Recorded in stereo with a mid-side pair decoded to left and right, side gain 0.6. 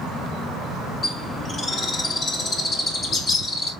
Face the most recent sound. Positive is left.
turn(degrees=35)